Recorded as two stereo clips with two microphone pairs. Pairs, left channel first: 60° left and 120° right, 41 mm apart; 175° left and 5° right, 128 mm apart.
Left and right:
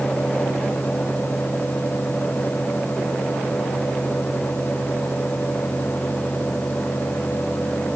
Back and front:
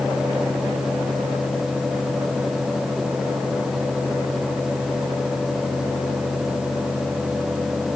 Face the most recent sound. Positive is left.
No sound to turn to.